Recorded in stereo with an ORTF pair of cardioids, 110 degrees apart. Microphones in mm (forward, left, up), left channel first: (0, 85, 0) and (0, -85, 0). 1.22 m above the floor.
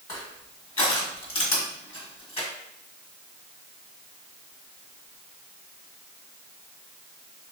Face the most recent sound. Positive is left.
turn(degrees=35)